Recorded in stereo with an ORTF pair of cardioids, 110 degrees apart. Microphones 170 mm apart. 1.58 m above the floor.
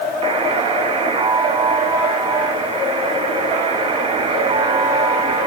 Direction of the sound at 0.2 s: 30° right.